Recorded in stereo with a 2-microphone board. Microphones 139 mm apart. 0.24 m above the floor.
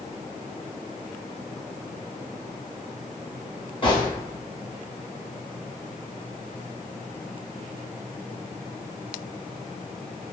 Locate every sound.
3.8 s a gunshot: 35° left (ahead or behind), 0.9 m